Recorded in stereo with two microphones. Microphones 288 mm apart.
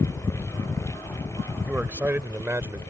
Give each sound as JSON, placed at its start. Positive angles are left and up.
{"t": 1.6, "sound": "a man speaking", "side_deg": -5}